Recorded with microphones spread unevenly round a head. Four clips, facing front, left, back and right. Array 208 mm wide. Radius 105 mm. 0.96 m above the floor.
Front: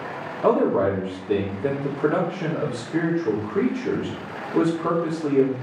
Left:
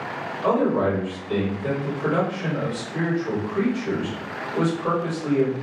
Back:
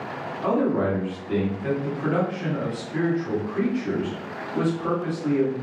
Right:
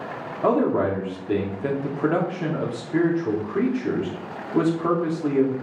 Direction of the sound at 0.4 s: 50° right.